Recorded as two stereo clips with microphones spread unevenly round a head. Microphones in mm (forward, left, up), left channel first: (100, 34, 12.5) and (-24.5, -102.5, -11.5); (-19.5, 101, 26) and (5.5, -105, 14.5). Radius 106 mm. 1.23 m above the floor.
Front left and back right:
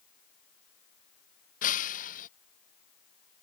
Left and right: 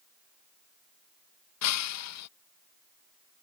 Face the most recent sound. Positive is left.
turn(degrees=105)